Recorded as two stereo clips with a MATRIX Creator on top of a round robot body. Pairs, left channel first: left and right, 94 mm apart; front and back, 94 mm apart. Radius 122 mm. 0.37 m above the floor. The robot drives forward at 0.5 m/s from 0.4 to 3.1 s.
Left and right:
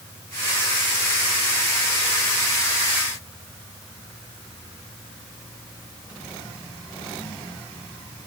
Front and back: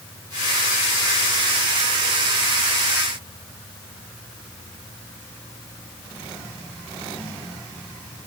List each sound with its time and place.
Only background noise.